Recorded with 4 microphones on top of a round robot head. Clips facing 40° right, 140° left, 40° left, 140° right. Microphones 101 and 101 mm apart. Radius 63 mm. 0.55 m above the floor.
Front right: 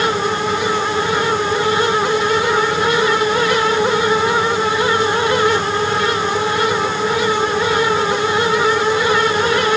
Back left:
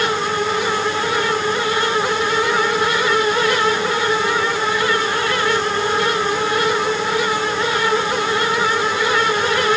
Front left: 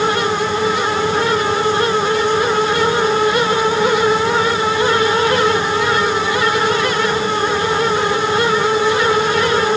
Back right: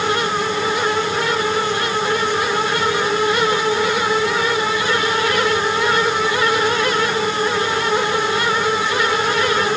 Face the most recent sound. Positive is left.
No sound to turn to.